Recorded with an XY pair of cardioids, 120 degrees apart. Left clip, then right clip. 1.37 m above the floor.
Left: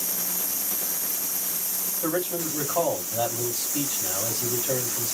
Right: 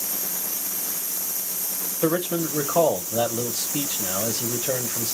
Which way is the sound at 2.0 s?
60° right.